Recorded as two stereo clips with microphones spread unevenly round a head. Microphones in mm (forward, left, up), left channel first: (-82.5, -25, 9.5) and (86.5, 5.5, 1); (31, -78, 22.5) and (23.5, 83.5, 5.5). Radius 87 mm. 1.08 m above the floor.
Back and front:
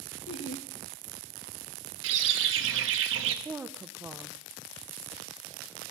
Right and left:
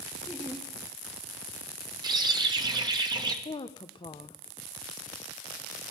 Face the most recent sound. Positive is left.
turn(degrees=-50)